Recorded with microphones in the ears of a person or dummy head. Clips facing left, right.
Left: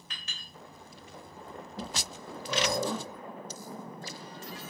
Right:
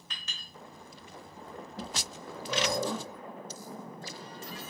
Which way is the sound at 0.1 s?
80° right.